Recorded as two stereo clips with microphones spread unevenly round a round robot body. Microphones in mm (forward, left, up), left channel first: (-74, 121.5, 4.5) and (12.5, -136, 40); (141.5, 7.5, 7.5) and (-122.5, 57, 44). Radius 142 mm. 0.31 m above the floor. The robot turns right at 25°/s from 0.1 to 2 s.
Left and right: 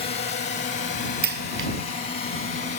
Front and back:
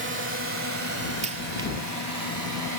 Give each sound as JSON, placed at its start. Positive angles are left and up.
{"t": 0.0, "sound": "a drone", "azimuth_deg": 150}
{"t": 1.2, "sound": "a dropped coin", "azimuth_deg": -125}